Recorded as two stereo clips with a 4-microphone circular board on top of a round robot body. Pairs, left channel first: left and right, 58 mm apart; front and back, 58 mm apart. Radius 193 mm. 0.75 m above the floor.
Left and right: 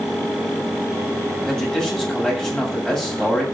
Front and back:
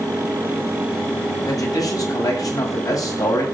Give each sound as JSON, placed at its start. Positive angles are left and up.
{"t": 1.5, "sound": "a man speaking", "azimuth_deg": 15, "distance_m": 7.5}